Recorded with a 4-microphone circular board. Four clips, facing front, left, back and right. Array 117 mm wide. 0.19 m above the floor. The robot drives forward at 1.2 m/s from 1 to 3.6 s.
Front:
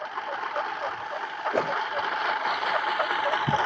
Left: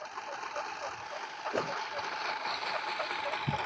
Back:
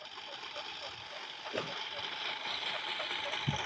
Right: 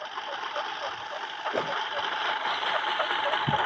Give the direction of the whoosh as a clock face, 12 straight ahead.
12 o'clock.